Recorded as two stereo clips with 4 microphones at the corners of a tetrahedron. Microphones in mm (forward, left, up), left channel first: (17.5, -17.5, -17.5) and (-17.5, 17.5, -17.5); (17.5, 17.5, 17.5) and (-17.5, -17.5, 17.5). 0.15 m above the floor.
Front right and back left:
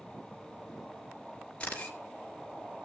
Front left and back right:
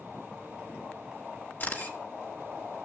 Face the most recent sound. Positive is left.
turn(degrees=15)